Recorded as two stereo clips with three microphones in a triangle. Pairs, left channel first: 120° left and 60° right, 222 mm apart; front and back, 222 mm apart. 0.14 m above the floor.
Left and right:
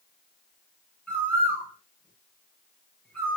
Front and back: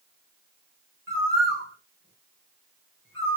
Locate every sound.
1.1 s a bird: 155° right, 3.5 m